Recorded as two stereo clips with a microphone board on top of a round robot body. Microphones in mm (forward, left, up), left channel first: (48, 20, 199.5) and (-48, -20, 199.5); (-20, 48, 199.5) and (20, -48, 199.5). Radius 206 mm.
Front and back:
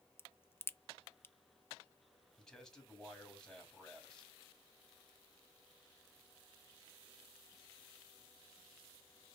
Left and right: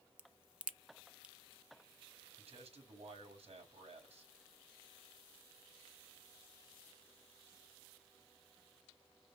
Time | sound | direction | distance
0.2 | a crack | 5° right | 0.8 m
2.4 | a man speaking | 65° right | 4 m